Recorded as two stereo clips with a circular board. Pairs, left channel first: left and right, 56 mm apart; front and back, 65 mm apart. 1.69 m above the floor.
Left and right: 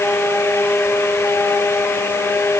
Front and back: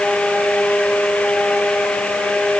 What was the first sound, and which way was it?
Only background noise.